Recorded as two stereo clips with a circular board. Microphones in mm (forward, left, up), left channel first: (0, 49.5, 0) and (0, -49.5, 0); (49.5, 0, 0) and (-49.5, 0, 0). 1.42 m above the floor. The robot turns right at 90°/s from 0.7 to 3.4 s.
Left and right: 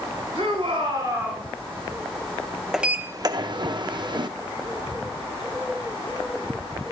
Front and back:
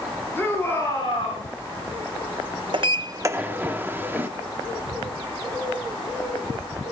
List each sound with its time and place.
0.3 s a shout: 65° right, 6.5 m; by 1.5 s straight ahead, 6.5 m
2.7 s a sliding door: 175° right, 0.6 m; by 4.3 s 115° right, 0.6 m